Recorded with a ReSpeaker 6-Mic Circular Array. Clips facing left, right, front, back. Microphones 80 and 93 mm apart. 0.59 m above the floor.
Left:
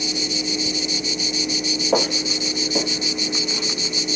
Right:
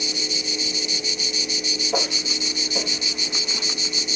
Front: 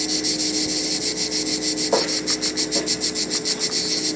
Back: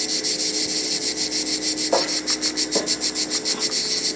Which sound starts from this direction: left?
Footsteps, at 1.9 s.